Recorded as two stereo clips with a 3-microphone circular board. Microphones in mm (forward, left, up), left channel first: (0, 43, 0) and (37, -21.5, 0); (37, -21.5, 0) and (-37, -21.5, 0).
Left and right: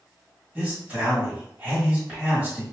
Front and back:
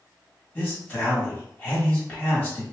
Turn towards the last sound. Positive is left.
turn(degrees=-25)